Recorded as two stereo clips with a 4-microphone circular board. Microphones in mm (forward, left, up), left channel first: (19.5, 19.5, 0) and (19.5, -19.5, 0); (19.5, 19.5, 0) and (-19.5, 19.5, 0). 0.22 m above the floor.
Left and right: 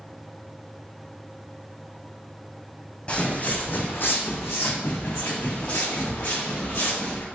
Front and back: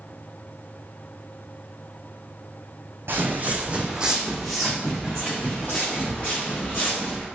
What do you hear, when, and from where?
3.1 s footsteps: 150° left, 0.7 m; by 7.2 s 55° left, 2 m